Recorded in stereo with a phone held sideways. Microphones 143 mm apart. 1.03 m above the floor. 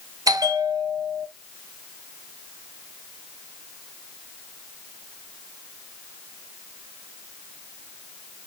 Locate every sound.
0.3 s a bell: 25° right (ahead or behind), 0.6 m